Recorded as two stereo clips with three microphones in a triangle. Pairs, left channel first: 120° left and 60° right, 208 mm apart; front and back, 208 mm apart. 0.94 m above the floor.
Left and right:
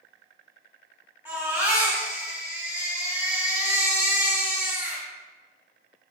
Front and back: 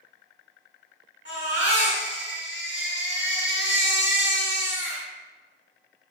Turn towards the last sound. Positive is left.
turn(degrees=20)